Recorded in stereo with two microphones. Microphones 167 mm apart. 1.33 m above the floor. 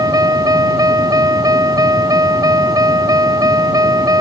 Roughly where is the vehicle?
Right.